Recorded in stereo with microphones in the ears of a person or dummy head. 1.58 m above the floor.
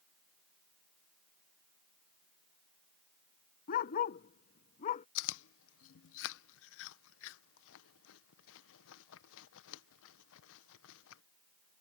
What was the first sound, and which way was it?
A dog barking, 40° left (ahead or behind).